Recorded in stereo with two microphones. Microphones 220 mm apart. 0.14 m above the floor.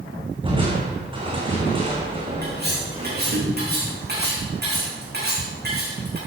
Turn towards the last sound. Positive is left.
turn(degrees=-50)  # may be behind; listen again after turning